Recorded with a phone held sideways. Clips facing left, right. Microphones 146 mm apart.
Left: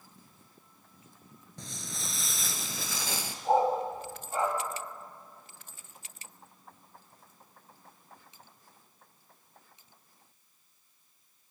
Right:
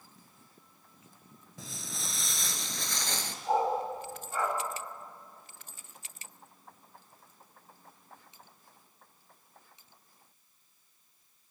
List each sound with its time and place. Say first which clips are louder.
1.6 s footsteps: left 1 dB; 5° right (ahead or behind), 1.4 m; by 3.4 s 10° left (ahead or behind), 1.5 m
3.5 s a dog barking: left 3 dB; 25° left (ahead or behind), 4 m